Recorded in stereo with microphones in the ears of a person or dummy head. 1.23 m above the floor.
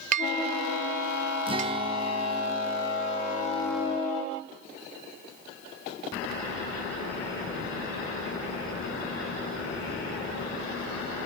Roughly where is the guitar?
Right.